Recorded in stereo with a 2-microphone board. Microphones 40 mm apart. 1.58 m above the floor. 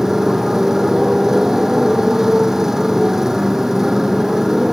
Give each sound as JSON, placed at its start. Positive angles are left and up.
{"t": 0.0, "sound": "a motorcycle", "side_deg": -10}